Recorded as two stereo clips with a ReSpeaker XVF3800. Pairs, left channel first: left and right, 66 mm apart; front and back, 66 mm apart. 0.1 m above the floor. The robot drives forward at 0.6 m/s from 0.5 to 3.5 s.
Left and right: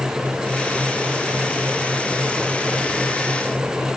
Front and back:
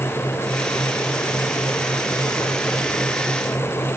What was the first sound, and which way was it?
Only background noise.